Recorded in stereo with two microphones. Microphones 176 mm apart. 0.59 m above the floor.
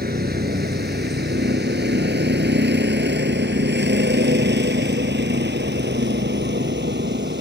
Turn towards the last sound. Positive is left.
turn(degrees=-80)